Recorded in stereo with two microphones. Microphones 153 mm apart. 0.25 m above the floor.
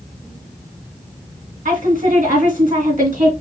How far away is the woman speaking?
About 2.5 m.